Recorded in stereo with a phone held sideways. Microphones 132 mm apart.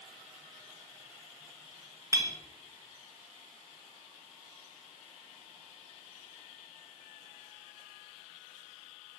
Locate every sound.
2.1 s a clink: 25° right (ahead or behind), 0.7 m